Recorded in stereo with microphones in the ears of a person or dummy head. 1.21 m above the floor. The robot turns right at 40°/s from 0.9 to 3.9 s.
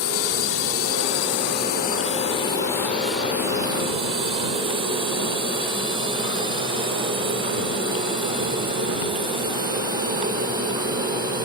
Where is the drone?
70° left (ahead or behind); by 11.5 s 20° right (ahead or behind).